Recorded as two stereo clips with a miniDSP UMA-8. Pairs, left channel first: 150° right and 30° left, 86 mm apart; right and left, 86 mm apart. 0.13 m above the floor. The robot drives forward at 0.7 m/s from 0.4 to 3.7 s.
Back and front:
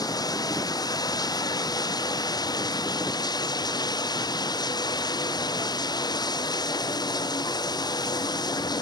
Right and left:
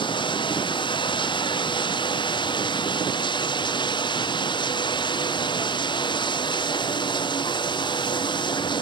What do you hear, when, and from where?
0.0 s running water: 110° right; by 8.8 s 115° right